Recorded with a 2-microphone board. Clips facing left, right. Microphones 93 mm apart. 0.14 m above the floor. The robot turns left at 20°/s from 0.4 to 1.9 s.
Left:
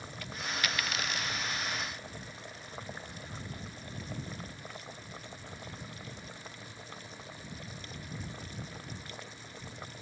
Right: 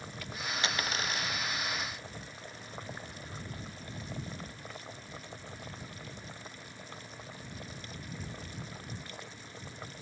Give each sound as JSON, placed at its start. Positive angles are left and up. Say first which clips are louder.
{"t": 0.6, "sound": "a dropped coin", "louder": "right 1 dB", "side_deg": -25}